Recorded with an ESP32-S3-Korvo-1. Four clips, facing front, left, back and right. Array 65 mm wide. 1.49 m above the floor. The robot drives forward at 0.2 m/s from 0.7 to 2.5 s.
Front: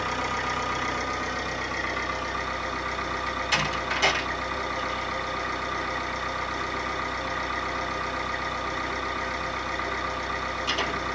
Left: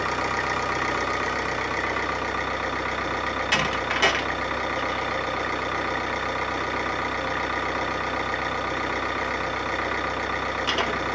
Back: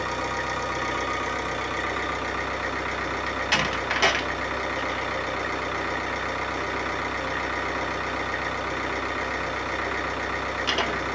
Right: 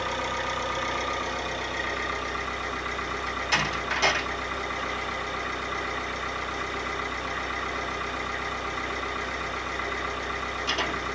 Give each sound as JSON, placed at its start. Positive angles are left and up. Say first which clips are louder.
{"t": 0.0, "sound": "an engine running", "louder": "left 4 dB, even", "azimuth_deg": 95, "distance_m": 0.8}
{"t": 3.3, "sound": "a door slam", "louder": "left 1 dB, back 2 dB", "azimuth_deg": 140, "distance_m": 0.9}